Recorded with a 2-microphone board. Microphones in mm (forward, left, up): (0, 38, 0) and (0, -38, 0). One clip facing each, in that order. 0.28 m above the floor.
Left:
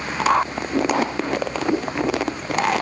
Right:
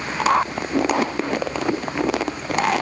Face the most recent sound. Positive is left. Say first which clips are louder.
# left 3 dB
turn(degrees=20)  # may be behind; listen again after turning